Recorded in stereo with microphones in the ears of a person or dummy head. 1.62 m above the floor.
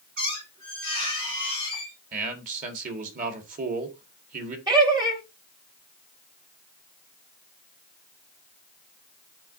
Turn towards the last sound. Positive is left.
turn(degrees=-20)  # may be behind; listen again after turning